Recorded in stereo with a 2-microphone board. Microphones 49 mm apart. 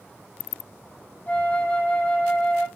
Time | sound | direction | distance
1.3 | a flute | 35° left (ahead or behind) | 0.6 m